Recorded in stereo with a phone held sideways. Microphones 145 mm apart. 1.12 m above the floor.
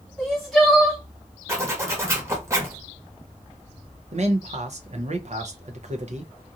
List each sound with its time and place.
0.2 s crying: centre (ahead or behind), 1.2 m
1.5 s a zipper: 20° right (ahead or behind), 1.1 m
4.1 s a man speaking: 55° right (ahead or behind), 0.7 m